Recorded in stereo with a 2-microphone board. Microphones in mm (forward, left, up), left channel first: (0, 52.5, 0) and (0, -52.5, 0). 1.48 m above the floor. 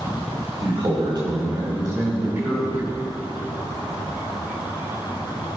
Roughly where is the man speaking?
Right.